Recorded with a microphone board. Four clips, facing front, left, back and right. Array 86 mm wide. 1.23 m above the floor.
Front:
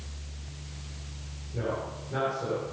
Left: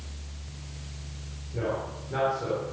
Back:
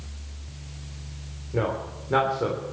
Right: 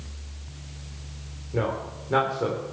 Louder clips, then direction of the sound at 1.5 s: Right 3 dB, back 5 dB; 145° right.